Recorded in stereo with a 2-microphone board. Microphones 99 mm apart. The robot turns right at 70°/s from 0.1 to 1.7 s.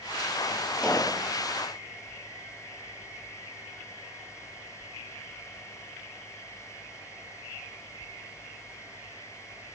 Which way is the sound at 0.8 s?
5° left (ahead or behind).